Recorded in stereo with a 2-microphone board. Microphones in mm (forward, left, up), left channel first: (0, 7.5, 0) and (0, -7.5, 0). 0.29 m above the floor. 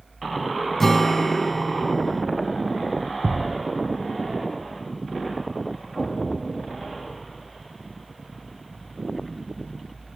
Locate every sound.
0.8 s a guitar: 20° left (ahead or behind), 1.2 m
3.2 s a thud: 10° left (ahead or behind), 1.0 m
6.0 s an explosion: 20° left (ahead or behind), 8.5 m